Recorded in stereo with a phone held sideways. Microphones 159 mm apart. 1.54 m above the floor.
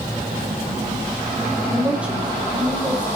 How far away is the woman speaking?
About 5.5 m.